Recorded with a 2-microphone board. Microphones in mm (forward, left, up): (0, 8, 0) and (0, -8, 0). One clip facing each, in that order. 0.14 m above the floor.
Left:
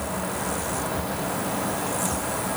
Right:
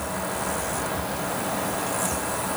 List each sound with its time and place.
Only background noise.